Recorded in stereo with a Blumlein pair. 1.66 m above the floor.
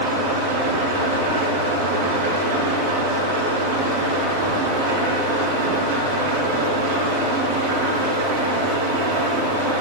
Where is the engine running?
60° right, 5.5 m.